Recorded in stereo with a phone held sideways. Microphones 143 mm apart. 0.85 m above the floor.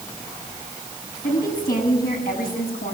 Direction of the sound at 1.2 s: 85° left.